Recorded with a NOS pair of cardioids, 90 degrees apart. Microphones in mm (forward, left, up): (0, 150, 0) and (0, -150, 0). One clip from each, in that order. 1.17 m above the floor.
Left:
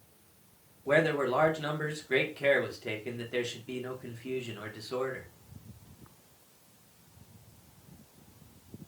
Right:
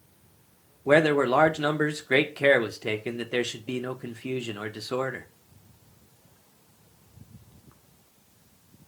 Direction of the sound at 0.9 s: 40° right.